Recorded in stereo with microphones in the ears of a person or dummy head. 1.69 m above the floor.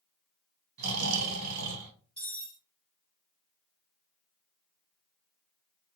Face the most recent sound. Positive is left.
turn(degrees=5)  # may be behind; listen again after turning